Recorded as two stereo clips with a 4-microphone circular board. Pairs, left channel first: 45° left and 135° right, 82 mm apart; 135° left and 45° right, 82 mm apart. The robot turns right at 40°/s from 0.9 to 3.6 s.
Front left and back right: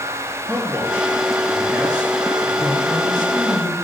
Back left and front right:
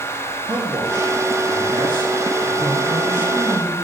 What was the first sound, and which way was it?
A man speaking, 70° right.